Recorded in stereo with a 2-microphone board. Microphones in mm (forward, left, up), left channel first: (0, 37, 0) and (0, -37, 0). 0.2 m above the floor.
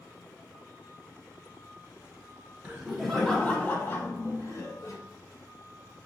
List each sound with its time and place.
2.6 s laughter: 15° right (ahead or behind), 1.0 m; by 5.0 s 55° left (ahead or behind), 1.6 m